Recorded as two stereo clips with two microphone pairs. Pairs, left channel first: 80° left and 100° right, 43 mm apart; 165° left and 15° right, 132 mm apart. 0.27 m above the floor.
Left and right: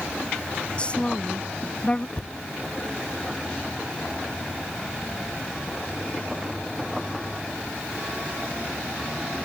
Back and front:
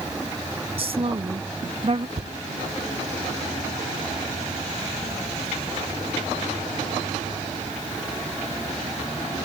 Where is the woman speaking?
20° left.